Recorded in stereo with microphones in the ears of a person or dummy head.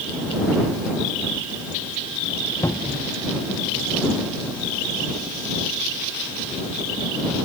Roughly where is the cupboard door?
Centre.